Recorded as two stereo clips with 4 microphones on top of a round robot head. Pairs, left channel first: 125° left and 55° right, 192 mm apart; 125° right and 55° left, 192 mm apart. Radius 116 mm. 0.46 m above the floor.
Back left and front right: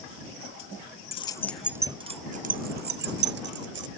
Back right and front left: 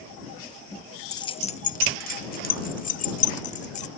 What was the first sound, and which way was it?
Keys jangling, 170° left.